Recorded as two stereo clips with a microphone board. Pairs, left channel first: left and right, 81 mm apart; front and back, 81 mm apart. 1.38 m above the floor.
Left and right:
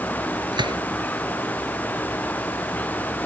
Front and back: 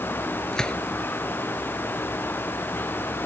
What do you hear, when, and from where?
0.5 s a gunshot: 85° right